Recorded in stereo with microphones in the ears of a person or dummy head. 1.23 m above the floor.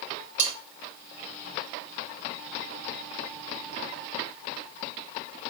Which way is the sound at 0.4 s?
15° right (ahead or behind).